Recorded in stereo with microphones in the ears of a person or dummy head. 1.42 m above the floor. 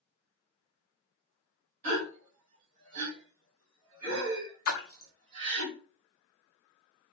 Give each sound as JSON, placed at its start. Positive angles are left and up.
{"t": 1.8, "sound": "a gasp", "side_deg": -40, "distance_m": 2.0}
{"t": 4.7, "sound": "a splash", "side_deg": 70, "distance_m": 0.7}